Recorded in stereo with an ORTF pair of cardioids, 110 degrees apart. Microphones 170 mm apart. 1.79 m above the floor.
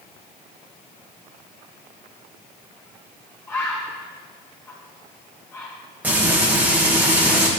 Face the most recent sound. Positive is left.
turn(degrees=-10)